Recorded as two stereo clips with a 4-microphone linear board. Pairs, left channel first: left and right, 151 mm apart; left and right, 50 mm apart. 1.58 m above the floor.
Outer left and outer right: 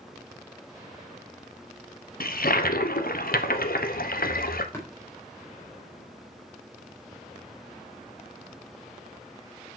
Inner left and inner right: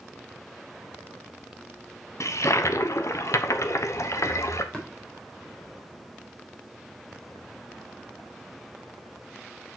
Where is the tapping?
20° left (ahead or behind), 3.5 m.